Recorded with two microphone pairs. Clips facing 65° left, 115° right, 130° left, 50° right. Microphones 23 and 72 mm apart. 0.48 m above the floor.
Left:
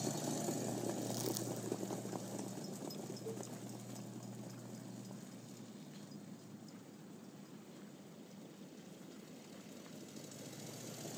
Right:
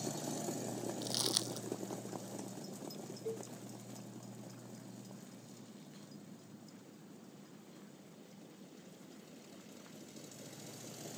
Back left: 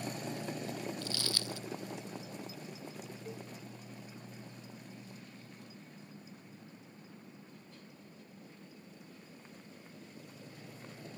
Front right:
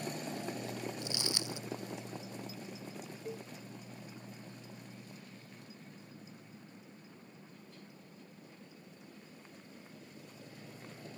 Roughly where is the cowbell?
Behind right.